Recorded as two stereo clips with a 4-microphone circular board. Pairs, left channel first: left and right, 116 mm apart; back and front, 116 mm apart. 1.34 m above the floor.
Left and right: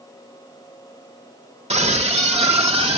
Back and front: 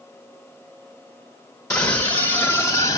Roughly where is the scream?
Behind right.